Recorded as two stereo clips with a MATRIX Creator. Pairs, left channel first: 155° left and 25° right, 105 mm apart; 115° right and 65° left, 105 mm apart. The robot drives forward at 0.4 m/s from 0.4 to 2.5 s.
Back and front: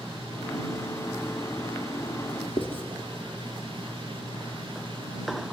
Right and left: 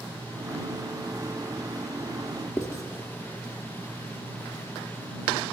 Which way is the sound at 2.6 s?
170° right.